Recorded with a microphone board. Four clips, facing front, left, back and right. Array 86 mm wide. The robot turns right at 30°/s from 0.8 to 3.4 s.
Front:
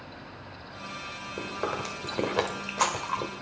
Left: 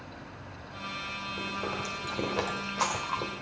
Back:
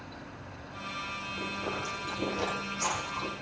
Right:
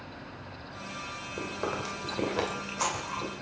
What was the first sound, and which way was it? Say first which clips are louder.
Chewing: right 2 dB, front 5 dB; 35° right.